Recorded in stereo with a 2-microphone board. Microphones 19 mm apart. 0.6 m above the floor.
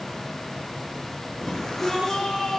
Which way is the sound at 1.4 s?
25° left (ahead or behind).